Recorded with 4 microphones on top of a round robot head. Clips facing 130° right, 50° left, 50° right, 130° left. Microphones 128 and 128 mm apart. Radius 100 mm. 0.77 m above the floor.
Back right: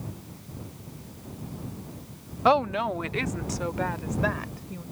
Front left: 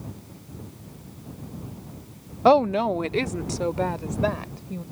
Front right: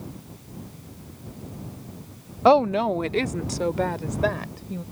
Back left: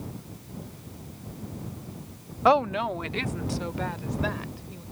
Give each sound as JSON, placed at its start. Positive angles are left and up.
{"t": 2.5, "sound": "a woman speaking", "azimuth_deg": 5}